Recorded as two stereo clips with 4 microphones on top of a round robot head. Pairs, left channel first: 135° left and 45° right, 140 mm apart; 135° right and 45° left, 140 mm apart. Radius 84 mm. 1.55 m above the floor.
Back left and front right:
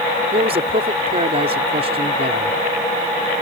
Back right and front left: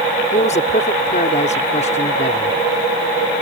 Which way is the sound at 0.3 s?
90° right.